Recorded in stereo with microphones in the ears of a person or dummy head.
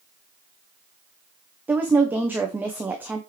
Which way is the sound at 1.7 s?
10° right (ahead or behind).